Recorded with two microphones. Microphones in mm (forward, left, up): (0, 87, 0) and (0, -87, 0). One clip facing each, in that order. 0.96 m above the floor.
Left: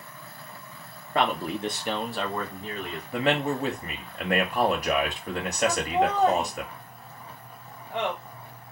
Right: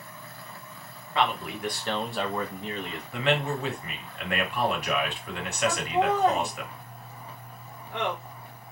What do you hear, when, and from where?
1.1 s a man speaking: 50° left (ahead or behind), 0.8 m; by 3.0 s 30° right (ahead or behind), 1.0 m
3.1 s a man speaking: 40° left (ahead or behind), 1.0 m
5.7 s laughter: 5° left (ahead or behind), 1.3 m